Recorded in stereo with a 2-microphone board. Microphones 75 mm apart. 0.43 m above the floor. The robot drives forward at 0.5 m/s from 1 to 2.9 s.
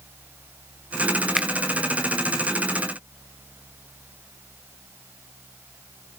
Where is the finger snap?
5° right (ahead or behind), 0.7 m.